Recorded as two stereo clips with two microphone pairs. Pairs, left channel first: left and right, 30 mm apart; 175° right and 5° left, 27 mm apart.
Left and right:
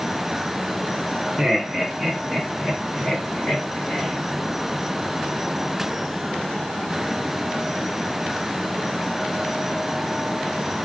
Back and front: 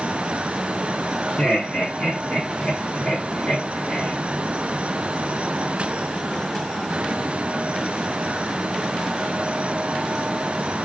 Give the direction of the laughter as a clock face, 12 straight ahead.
5 o'clock.